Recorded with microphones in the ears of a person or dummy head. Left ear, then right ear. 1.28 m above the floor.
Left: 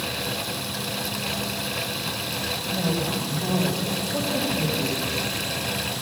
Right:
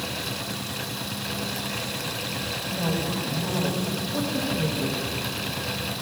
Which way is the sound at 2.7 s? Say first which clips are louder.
Left 1 dB; 20° left (ahead or behind).